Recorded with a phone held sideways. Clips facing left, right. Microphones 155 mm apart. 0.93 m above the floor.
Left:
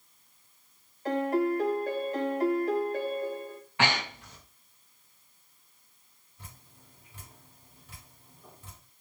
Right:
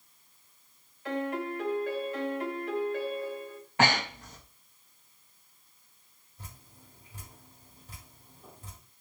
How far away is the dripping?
About 3 m.